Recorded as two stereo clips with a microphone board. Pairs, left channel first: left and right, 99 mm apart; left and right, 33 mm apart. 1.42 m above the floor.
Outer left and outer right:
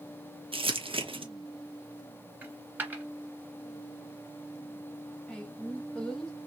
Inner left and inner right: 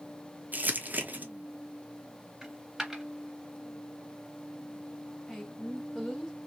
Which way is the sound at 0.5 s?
60° right (ahead or behind).